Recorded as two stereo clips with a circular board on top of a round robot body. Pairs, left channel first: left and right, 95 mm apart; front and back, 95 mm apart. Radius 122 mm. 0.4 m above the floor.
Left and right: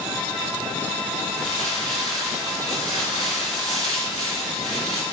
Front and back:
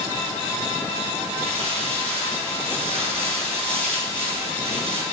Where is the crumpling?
175° left, 5.5 m.